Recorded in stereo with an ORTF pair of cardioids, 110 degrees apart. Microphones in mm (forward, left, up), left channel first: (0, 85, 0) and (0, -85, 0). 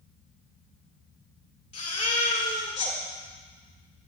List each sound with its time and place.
1.7 s a baby crying: 40° left, 4 m